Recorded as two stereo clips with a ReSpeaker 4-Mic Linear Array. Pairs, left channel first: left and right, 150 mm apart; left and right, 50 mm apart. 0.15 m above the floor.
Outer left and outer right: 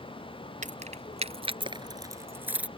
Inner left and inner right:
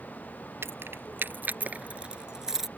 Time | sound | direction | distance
0.6 | keys jangling | 55° right (ahead or behind) | ?